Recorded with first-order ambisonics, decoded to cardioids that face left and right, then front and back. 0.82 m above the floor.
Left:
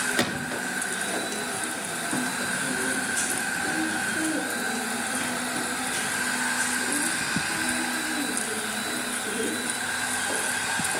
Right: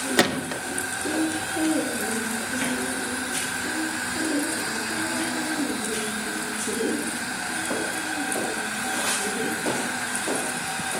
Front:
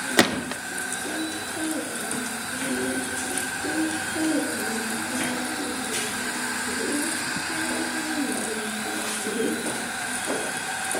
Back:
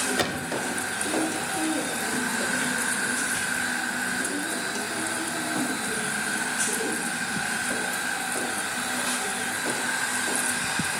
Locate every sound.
0.2 s a gunshot: 25° right, 1.2 m